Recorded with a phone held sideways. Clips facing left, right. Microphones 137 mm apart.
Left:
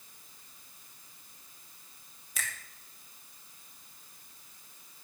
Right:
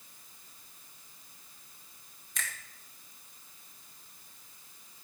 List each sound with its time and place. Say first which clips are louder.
2.4 s a finger snap: even; 5° left (ahead or behind), 2.5 m